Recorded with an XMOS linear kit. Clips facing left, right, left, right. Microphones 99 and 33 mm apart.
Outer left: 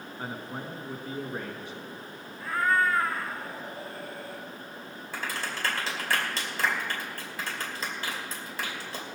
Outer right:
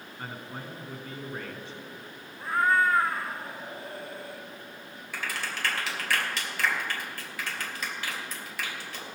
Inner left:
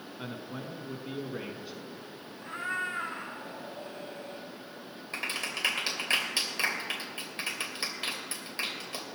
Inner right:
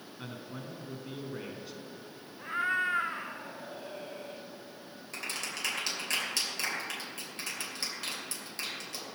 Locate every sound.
0.2 s a man speaking: 15° left (ahead or behind), 1.1 m
2.4 s a cat meowing: 25° right (ahead or behind), 1.0 m
5.1 s a clap: 25° left (ahead or behind), 2.5 m